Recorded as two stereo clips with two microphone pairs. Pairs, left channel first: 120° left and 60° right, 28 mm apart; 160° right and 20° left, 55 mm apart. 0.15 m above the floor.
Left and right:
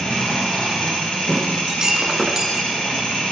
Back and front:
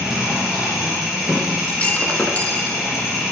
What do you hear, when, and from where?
0.0 s an engine running: 100° left, 3 m
1.7 s breaking glass: 105° right, 0.7 m